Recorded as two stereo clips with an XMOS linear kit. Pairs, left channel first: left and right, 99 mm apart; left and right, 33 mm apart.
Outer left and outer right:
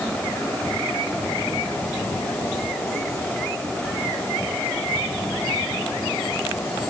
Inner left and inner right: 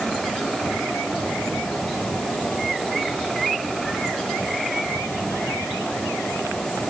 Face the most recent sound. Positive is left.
No sound to turn to.